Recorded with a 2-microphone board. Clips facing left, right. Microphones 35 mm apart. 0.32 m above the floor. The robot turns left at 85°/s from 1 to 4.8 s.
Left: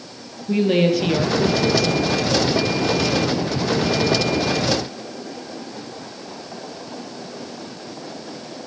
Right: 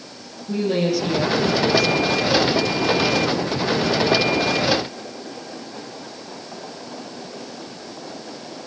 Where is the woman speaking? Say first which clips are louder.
Left 4 dB; 135° left, 7.5 m; by 2.3 s 20° left, 7.5 m.